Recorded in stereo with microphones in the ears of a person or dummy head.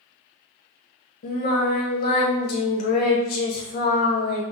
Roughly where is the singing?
Left.